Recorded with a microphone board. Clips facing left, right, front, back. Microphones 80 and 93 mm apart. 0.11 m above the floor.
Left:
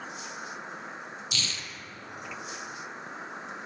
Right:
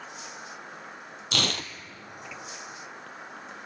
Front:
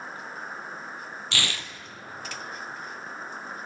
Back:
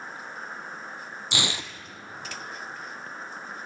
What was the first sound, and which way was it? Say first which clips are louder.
An insect: left 2 dB, front 1 dB; 85° left.